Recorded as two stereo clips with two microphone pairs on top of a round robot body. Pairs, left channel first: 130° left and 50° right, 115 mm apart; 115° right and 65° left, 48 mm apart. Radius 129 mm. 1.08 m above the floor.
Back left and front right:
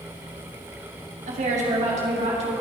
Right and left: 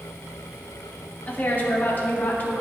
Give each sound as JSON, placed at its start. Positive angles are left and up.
{"t": 1.3, "sound": "a woman speaking", "azimuth_deg": -60, "distance_m": 3.0}